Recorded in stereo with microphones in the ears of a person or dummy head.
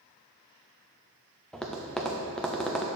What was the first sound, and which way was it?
Tapping, centre (ahead or behind).